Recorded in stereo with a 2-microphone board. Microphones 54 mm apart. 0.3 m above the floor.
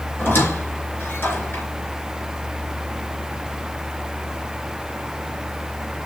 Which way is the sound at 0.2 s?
45° left (ahead or behind).